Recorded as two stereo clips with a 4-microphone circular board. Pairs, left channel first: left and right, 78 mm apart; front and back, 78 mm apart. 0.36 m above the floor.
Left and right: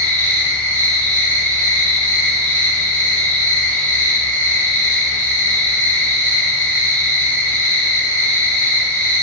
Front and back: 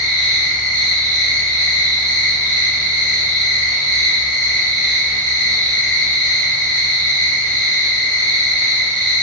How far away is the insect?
About 1.4 m.